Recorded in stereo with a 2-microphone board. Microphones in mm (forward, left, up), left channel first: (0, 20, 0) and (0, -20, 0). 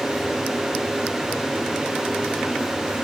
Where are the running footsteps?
No running footsteps in this recording.